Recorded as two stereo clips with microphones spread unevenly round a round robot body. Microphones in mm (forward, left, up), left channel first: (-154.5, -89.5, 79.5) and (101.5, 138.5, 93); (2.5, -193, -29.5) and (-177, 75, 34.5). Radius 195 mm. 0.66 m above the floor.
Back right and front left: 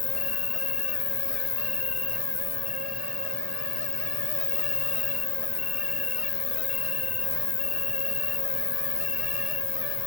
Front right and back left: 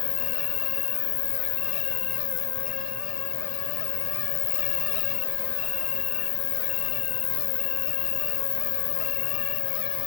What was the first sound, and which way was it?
An insect, 70° right.